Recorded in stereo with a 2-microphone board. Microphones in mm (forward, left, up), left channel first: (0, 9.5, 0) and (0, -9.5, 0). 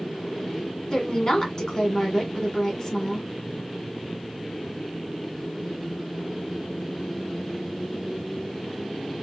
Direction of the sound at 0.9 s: 40° left (ahead or behind).